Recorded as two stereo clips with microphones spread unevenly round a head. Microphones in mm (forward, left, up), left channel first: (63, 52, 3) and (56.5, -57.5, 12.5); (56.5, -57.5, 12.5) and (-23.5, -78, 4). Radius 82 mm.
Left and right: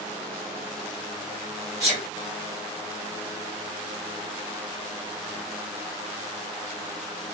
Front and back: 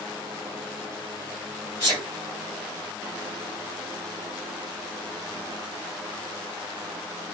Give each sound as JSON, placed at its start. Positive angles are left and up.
{"t": 1.8, "sound": "a sneeze", "azimuth_deg": -5, "distance_m": 3.0}